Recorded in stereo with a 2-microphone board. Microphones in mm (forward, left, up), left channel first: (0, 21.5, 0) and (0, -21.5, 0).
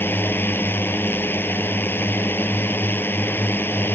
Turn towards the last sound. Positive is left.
turn(degrees=55)  # may be behind; listen again after turning